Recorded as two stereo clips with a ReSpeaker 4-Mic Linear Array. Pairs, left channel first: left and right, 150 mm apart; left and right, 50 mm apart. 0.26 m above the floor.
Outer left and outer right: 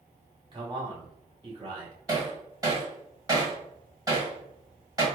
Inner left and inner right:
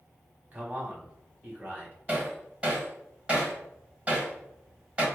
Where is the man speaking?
35° right (ahead or behind), 1.3 m.